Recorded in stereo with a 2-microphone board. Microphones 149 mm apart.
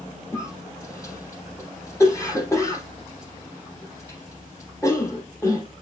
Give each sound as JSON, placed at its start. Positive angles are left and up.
{"t": 0.3, "sound": "a cough", "side_deg": 20, "distance_m": 4.0}